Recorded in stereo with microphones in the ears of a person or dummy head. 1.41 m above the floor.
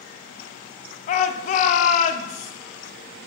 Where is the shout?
45° left (ahead or behind), 0.5 m.